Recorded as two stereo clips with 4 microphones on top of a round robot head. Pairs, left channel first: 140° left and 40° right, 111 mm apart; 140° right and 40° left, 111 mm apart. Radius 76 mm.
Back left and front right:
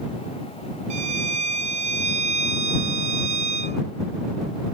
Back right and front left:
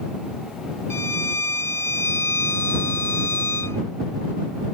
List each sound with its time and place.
0.9 s a violin: 70° right